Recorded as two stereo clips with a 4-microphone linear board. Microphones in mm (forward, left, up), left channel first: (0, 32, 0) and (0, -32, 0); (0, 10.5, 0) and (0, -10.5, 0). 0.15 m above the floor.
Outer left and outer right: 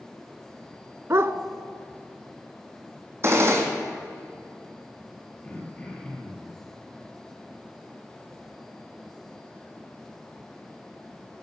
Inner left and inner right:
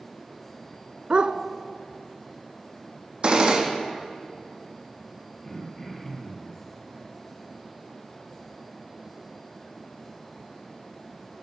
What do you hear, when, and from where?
1.1 s a dog barking: 45° right (ahead or behind), 0.6 m
3.2 s a gunshot: 45° right (ahead or behind), 2.5 m
5.4 s throat clearing: 20° left (ahead or behind), 2.5 m